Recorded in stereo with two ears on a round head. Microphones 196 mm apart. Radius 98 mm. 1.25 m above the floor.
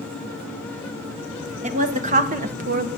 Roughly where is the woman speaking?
Right.